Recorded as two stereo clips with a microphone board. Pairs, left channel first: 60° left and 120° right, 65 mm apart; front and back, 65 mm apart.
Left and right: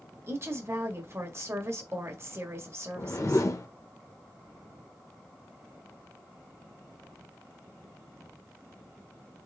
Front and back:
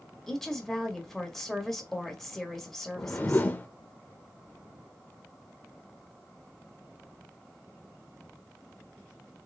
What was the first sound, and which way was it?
A woman speaking, 85° right.